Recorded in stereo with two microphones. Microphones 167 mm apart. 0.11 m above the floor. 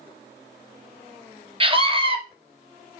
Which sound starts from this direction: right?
A scream, at 1.6 s.